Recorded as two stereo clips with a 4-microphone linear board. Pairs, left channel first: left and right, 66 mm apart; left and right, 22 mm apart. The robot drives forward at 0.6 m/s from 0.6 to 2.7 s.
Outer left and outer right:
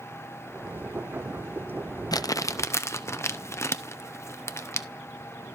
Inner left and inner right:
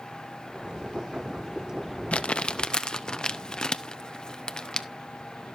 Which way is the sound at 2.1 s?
70° left (ahead or behind).